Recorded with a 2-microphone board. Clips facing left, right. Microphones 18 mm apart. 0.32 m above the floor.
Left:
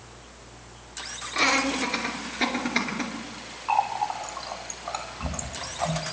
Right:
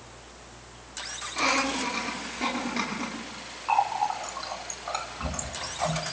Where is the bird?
No bird in this recording.